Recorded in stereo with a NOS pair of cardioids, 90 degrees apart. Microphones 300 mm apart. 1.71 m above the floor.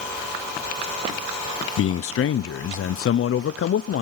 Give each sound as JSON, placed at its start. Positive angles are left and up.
{"t": 1.8, "sound": "a man speaking", "azimuth_deg": 45, "distance_m": 0.8}